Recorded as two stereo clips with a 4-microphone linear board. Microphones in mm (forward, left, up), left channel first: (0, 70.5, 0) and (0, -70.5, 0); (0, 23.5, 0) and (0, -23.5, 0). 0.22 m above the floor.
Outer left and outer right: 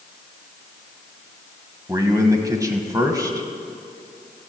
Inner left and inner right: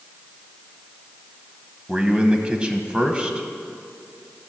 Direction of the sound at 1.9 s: 25° right (ahead or behind).